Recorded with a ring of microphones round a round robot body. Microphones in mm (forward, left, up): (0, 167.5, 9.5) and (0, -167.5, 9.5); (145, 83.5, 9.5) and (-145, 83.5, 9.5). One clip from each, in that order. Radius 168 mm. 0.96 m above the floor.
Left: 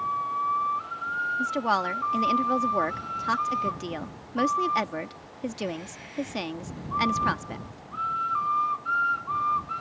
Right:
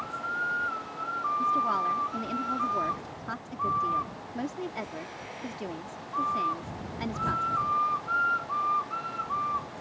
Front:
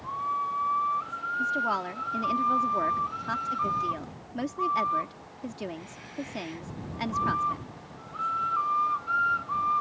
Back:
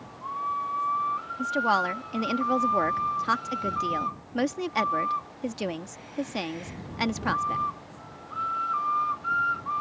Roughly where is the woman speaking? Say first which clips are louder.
Right 1 dB, back 4 dB; behind left.